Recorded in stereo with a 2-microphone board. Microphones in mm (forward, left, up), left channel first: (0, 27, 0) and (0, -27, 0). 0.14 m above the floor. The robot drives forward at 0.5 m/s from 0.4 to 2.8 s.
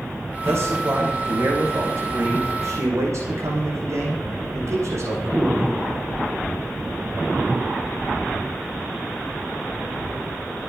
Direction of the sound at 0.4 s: 50° right (ahead or behind).